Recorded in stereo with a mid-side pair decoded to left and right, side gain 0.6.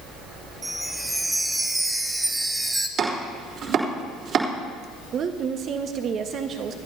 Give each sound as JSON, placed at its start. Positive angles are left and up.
{"t": 0.6, "sound": "a chime", "azimuth_deg": -10, "distance_m": 1.3}
{"t": 3.0, "sound": "chopping", "azimuth_deg": -55, "distance_m": 3.0}
{"t": 5.1, "sound": "a woman speaking", "azimuth_deg": -50, "distance_m": 1.4}